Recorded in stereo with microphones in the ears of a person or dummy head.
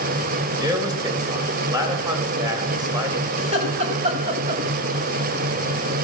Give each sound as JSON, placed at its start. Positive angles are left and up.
{"t": 0.6, "sound": "a man speaking", "side_deg": -25, "distance_m": 5.5}
{"t": 3.4, "sound": "laughter", "side_deg": -40, "distance_m": 6.0}